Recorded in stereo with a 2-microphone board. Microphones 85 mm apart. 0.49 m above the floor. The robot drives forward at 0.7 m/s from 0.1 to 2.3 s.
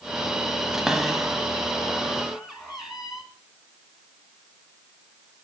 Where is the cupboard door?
5° right (ahead or behind), 1.7 m.